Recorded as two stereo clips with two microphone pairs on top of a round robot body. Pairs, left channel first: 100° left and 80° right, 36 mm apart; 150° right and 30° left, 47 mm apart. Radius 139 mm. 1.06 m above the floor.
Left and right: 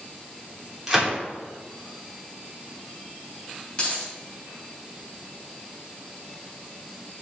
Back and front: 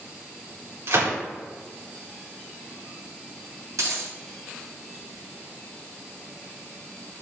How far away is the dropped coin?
About 3 m.